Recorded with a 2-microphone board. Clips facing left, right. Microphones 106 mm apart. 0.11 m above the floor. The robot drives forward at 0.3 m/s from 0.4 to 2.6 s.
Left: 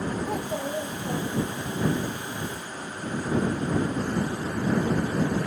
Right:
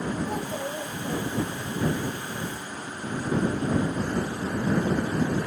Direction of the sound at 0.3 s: 35° left (ahead or behind).